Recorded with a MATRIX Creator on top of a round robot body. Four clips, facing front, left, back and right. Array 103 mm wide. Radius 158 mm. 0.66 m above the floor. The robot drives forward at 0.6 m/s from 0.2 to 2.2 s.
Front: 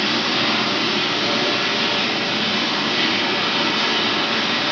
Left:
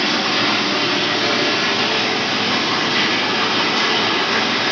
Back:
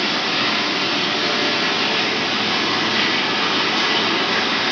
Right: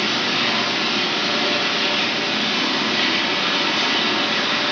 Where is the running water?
85° left, 2 m; by 4.7 s 120° left, 2.5 m.